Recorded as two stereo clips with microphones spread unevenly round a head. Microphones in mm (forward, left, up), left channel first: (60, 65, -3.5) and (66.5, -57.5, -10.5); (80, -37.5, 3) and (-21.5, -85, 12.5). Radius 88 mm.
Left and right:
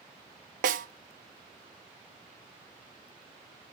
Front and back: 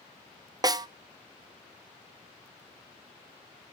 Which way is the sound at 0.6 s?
100° right.